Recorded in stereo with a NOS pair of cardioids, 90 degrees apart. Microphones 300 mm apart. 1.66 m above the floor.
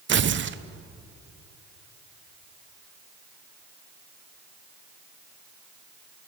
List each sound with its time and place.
0.1 s tearing paper: 40° right, 1.1 m